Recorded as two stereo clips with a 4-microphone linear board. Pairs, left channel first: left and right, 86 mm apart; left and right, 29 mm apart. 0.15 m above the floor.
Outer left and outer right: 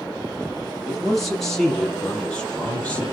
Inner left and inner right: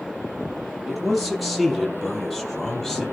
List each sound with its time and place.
0.9 s a man speaking: centre (ahead or behind), 5 m; by 3.0 s 15° left (ahead or behind), 5 m